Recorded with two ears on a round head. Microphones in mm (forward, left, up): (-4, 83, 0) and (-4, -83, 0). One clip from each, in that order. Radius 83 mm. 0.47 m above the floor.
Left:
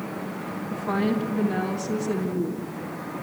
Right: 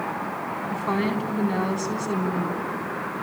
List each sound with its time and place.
0.7 s a woman speaking: 60° right (ahead or behind), 3.5 m